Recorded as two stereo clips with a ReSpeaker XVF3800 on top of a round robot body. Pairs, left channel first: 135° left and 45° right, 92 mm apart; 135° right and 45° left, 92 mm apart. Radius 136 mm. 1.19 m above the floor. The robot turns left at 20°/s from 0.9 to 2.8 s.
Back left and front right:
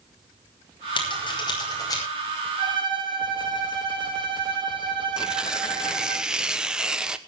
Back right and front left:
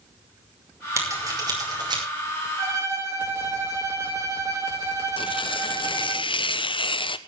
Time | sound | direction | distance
1.0 | scissors | 105° left | 5.5 m
2.6 | a violin | 10° right | 5.5 m
5.2 | tearing paper | 125° right | 1.1 m